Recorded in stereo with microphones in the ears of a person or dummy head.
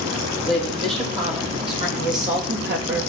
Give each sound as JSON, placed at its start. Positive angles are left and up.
{"t": 0.5, "sound": "a woman speaking", "side_deg": -30, "distance_m": 3.5}